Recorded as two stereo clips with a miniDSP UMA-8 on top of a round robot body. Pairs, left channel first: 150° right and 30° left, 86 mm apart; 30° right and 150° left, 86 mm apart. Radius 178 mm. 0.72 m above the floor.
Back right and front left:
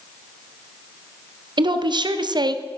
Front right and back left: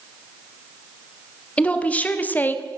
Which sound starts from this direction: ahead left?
A woman speaking, at 1.6 s.